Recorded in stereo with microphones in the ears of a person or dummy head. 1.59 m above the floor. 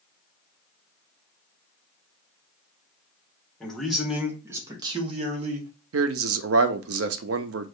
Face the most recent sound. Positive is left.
turn(degrees=-65)  # may be behind; listen again after turning